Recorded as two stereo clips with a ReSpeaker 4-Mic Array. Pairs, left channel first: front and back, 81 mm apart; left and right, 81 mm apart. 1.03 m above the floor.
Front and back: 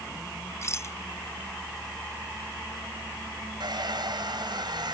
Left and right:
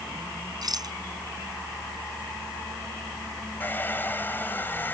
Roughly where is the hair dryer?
Behind left.